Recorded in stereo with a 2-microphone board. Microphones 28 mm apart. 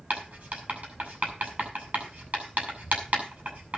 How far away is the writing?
About 5.5 m.